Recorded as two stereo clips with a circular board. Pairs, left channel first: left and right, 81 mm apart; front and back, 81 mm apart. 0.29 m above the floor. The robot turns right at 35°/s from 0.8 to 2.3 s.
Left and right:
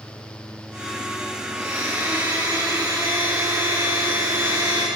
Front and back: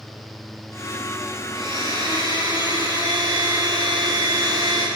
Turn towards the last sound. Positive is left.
turn(degrees=-145)